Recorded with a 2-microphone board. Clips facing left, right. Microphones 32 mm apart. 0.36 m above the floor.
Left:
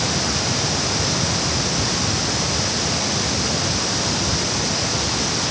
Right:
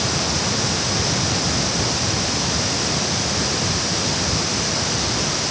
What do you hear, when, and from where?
Only background noise.